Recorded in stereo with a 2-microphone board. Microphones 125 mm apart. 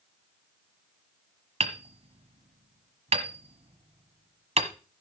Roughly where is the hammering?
Right.